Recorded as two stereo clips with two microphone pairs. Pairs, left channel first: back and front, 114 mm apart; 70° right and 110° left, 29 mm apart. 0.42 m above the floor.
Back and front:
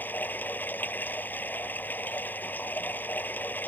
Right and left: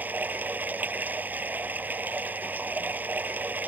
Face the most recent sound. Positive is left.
turn(degrees=105)